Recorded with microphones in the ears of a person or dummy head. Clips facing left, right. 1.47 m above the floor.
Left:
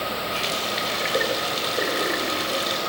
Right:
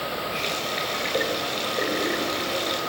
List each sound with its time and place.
0.3 s a running tap: 10° left (ahead or behind), 5 m